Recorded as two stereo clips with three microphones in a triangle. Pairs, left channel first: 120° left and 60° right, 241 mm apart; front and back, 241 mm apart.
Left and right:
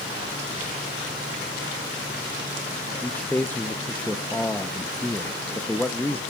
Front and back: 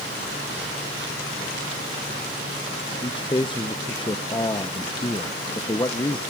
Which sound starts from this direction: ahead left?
A man speaking, at 3.0 s.